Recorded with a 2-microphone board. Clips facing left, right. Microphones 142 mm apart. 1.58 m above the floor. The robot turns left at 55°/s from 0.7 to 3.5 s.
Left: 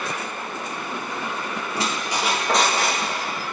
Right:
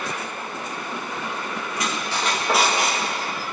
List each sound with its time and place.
1.8 s a squeak: 40° left, 1.3 m; by 3.0 s 30° right, 1.3 m